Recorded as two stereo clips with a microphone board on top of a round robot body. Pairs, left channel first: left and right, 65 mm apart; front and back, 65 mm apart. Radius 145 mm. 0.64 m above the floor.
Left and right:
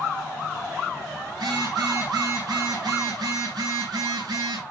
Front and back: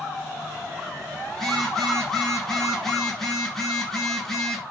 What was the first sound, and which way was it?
A phone buzzing, 85° right.